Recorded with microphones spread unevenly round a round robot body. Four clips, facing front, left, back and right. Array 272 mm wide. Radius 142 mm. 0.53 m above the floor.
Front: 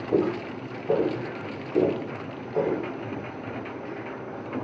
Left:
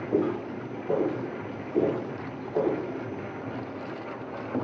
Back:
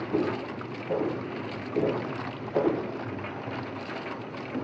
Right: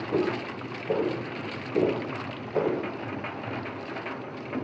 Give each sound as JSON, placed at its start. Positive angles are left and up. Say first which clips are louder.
{"t": 0.1, "sound": "footsteps", "louder": "left 1 dB, front 5 dB", "azimuth_deg": -15, "distance_m": 1.2}